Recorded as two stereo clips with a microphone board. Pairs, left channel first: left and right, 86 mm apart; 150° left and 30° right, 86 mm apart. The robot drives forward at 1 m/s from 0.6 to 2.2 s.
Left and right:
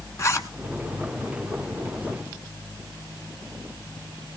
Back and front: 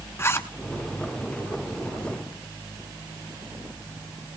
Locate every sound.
0.2 s a zipper: 110° left, 1.2 m